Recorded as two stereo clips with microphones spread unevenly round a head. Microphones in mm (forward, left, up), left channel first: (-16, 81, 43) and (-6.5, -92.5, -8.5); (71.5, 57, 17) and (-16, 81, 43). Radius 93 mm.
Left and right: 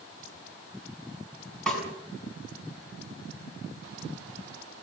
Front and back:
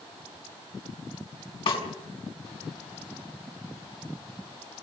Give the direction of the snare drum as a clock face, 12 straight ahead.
12 o'clock.